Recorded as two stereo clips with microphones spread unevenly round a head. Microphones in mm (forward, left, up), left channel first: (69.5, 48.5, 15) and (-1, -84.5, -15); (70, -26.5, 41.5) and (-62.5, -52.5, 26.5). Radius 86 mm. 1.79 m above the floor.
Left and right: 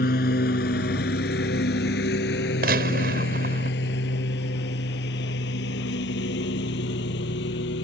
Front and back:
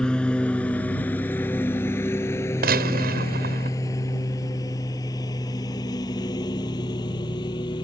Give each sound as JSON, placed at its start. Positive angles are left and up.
{"t": 0.0, "sound": "a lawn mower", "azimuth_deg": 95}
{"t": 2.6, "sound": "a gunshot", "azimuth_deg": -160}